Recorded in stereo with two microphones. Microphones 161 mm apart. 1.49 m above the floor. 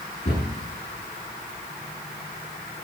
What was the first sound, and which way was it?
A cupboard door, 40° left (ahead or behind).